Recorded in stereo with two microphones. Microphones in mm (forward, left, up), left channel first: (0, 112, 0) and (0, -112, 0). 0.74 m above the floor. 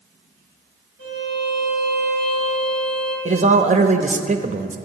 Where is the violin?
65° left (ahead or behind), 3.5 m.